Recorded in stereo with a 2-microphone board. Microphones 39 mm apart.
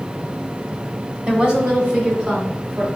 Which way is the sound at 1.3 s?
20° right (ahead or behind).